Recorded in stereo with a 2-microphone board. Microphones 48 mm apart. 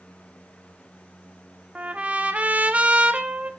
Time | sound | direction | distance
1.8 | a trumpet | 30° right (ahead or behind) | 1.0 m